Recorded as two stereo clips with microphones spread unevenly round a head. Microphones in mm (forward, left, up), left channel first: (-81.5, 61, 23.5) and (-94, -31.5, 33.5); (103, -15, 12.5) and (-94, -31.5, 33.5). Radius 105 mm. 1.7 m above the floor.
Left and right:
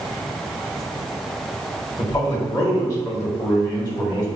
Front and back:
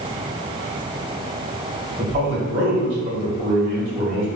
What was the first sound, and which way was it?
A man speaking, 135° left.